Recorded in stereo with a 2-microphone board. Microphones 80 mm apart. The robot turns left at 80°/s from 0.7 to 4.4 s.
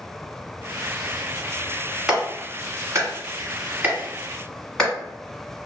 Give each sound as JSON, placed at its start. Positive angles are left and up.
{"t": 2.1, "sound": "a clap", "side_deg": -5, "distance_m": 1.1}